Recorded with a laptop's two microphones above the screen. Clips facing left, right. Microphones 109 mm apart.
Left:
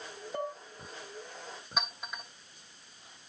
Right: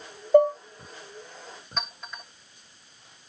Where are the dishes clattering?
70° right (ahead or behind), 0.7 m.